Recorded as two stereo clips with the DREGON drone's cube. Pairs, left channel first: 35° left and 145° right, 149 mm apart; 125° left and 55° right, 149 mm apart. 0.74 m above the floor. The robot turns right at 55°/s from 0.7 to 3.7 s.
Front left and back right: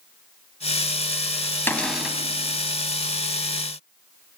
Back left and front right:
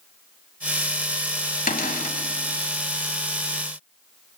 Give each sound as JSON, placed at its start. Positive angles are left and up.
{"t": 1.7, "sound": "a cupboard door", "azimuth_deg": 110, "distance_m": 1.8}